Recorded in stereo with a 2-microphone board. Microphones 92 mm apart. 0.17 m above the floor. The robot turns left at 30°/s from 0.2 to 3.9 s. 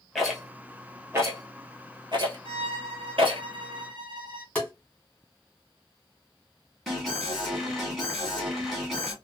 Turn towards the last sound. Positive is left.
turn(degrees=0)  # may be behind; listen again after turning